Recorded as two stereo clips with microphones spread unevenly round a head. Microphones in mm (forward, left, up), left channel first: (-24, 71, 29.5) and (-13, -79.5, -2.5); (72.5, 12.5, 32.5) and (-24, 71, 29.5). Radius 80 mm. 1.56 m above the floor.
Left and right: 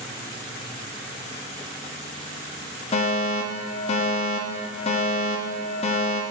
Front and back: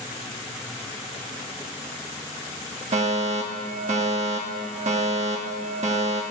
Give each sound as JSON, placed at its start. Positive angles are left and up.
{"t": 2.9, "sound": "a fire alarm", "azimuth_deg": 145, "distance_m": 1.3}